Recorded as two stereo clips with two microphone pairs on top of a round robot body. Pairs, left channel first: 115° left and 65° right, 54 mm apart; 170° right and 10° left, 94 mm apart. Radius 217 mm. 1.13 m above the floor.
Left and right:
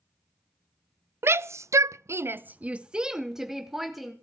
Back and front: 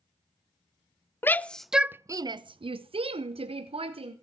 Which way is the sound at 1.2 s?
100° right.